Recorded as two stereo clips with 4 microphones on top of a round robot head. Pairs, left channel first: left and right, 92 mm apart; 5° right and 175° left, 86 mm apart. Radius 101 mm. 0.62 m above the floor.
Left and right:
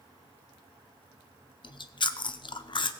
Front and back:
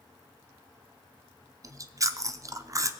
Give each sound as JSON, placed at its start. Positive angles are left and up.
{"t": 1.6, "sound": "chewing", "azimuth_deg": 120, "distance_m": 0.8}